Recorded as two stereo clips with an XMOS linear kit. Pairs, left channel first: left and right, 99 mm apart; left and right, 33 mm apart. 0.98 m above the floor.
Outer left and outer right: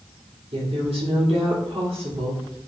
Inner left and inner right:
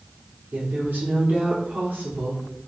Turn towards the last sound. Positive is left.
turn(degrees=-75)  # may be behind; listen again after turning